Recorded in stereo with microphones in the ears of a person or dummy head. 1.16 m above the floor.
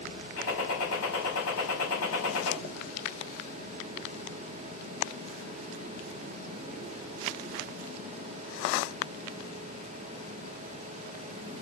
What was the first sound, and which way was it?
A gunshot, 85° left.